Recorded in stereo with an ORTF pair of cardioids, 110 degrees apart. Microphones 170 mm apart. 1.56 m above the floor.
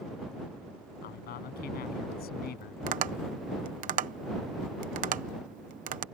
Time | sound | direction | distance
1.0 | a man speaking | 70° left | ?
2.9 | tapping | 55° right | ?